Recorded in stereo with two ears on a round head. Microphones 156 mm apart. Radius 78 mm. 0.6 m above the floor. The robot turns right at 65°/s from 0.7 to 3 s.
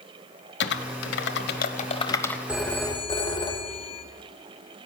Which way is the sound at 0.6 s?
65° left (ahead or behind).